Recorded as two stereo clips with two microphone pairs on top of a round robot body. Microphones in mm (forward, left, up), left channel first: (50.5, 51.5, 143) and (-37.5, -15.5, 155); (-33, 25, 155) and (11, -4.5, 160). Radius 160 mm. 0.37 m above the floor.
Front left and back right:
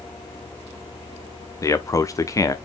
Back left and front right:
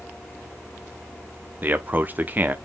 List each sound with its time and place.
1.6 s a man speaking: 10° left, 1.0 m